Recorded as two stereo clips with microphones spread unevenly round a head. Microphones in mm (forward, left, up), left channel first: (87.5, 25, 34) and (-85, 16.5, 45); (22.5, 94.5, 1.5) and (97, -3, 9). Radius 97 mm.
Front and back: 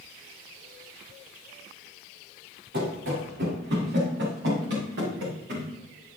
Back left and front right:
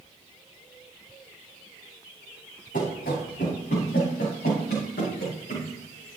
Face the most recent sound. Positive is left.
turn(degrees=165)